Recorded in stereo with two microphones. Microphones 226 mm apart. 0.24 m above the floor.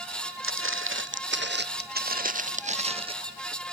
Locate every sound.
0.4 s footsteps: 65° right (ahead or behind); by 3.1 s 25° right (ahead or behind)